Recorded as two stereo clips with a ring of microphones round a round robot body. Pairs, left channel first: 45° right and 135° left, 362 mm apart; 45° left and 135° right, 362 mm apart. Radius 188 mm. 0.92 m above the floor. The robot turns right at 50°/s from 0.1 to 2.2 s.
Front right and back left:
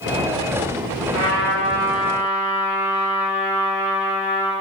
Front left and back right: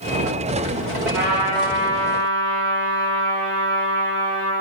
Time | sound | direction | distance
1.1 | a trumpet | straight behind | 3 m